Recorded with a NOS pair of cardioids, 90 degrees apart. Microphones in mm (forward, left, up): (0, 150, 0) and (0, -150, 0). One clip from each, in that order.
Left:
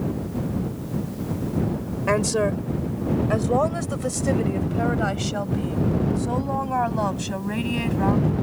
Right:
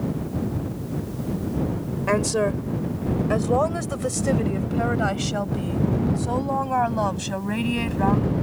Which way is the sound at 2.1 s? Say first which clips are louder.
Even; 5° left.